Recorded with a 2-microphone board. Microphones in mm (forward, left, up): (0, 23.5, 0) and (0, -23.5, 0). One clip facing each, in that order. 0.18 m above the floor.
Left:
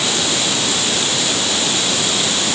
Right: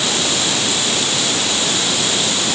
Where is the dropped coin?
I don't hear a dropped coin.